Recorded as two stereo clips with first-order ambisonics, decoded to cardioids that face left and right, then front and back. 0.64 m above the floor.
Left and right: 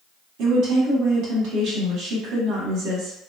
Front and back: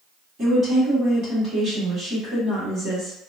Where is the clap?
No clap in this recording.